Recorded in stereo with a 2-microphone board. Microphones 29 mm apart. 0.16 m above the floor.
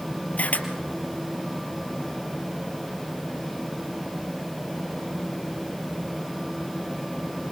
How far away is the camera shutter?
About 2.5 m.